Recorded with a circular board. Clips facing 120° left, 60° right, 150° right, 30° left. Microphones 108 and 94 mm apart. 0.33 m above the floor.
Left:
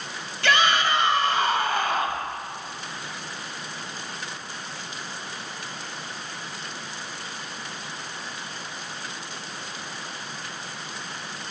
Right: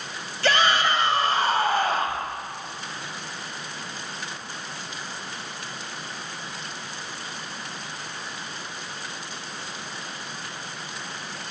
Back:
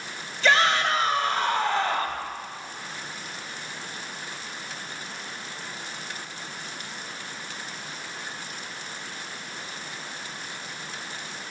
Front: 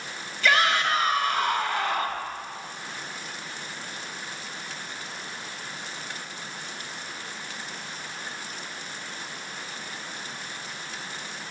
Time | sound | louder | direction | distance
0.4 | a shout | even, back 1 dB | 100° right | 2 m